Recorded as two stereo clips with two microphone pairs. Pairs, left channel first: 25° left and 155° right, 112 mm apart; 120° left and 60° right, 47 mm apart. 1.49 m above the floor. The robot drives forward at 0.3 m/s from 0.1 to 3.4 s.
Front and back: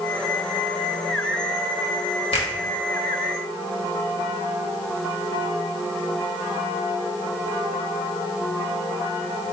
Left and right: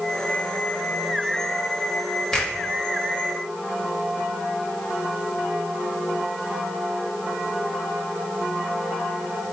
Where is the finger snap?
50° left, 1.3 m.